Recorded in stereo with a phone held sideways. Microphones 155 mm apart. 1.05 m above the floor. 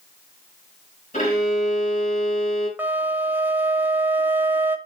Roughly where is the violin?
Left.